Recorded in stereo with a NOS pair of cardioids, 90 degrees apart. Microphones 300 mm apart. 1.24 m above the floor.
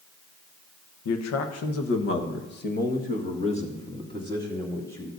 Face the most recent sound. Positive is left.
turn(degrees=10)